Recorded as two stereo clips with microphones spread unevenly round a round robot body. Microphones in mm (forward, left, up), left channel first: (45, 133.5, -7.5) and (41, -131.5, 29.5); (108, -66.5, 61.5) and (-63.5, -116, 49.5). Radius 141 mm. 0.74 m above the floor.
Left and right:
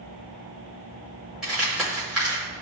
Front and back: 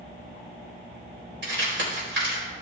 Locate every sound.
1.4 s crumpling: straight behind, 4 m